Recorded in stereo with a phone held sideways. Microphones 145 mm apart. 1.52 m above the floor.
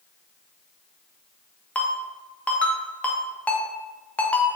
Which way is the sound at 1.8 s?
10° left (ahead or behind).